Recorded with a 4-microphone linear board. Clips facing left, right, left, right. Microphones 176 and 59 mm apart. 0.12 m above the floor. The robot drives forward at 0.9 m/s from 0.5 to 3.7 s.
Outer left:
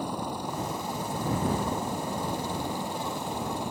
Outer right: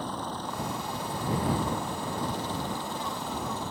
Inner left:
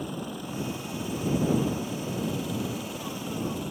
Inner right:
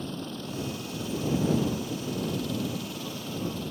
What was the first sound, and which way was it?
A helicopter, 10° left (ahead or behind).